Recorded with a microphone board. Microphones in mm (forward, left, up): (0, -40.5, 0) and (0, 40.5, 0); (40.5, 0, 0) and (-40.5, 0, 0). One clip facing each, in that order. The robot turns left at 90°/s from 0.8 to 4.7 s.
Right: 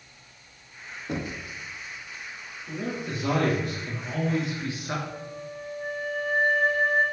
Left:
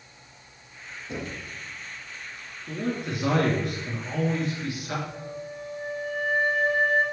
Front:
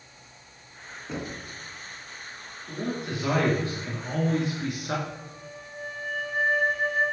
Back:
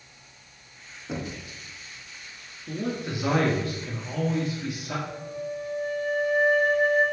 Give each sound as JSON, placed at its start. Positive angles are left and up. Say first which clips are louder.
{"t": 1.1, "sound": "knocking", "louder": "right 3 dB, back 1 dB", "azimuth_deg": -95, "distance_m": 1.5}
{"t": 2.7, "sound": "a man speaking", "louder": "left 2 dB, back 1 dB", "azimuth_deg": 155, "distance_m": 3.0}
{"t": 5.1, "sound": "a flute", "louder": "left 1 dB, back 7 dB", "azimuth_deg": -55, "distance_m": 3.0}